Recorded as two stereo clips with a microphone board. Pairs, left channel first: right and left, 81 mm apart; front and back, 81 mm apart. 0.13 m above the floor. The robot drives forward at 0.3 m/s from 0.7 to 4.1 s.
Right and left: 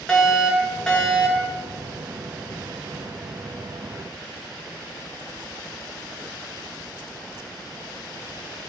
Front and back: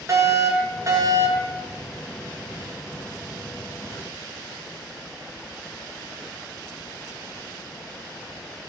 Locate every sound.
0.1 s a fire alarm: 170° right, 2.5 m